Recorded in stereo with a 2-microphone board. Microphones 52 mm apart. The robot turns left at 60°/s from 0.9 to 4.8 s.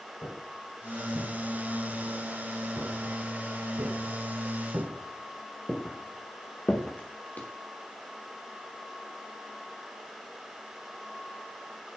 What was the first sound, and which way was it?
Footsteps, 70° left (ahead or behind).